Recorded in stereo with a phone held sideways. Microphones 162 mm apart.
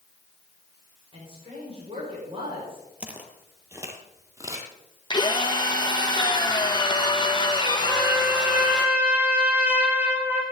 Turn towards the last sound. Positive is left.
turn(degrees=-10)  # may be behind; listen again after turning